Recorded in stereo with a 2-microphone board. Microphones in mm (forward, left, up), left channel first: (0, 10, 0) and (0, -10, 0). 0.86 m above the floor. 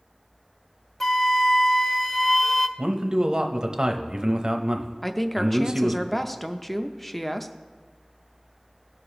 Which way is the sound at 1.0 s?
15° left (ahead or behind).